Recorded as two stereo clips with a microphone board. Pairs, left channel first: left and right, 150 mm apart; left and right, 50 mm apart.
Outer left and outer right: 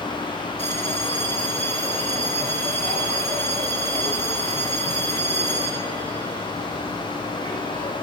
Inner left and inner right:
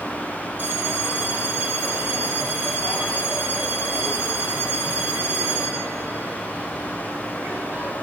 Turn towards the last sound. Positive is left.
turn(degrees=-50)  # may be behind; listen again after turning